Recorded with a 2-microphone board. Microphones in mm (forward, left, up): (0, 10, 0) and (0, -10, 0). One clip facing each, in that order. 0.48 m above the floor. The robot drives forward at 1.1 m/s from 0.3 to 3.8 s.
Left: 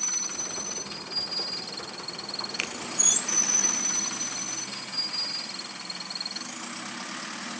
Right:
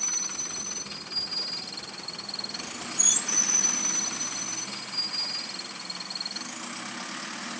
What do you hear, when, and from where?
2.6 s a finger snap: 45° left (ahead or behind), 1.2 m; by 2.7 s 40° left (ahead or behind), 1.3 m